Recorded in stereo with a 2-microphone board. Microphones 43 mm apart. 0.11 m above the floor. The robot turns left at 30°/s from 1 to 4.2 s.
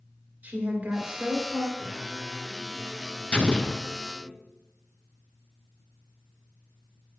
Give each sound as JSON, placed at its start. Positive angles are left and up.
{"t": 0.4, "sound": "a woman speaking", "side_deg": -35, "distance_m": 2.0}
{"t": 1.8, "sound": "singing", "azimuth_deg": 150, "distance_m": 3.5}
{"t": 3.3, "sound": "an explosion", "side_deg": 25, "distance_m": 0.5}